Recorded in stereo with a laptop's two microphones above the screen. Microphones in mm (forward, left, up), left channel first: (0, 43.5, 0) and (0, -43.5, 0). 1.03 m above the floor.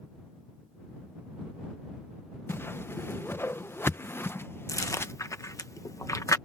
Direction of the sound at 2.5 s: 30° left (ahead or behind).